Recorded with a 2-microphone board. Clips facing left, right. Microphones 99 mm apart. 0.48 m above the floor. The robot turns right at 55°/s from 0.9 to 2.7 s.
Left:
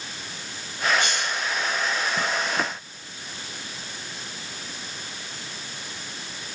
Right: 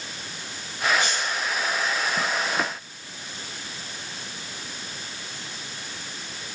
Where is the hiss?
65° left (ahead or behind), 1.3 m.